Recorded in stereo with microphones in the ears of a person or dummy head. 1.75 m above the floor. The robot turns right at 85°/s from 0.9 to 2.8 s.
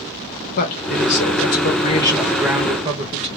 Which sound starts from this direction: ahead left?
A man speaking, at 0.6 s.